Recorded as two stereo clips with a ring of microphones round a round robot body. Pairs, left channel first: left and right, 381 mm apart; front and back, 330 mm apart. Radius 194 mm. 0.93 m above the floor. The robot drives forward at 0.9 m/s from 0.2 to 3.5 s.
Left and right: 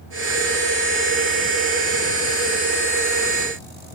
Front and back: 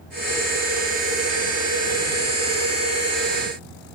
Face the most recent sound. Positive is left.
No sound to turn to.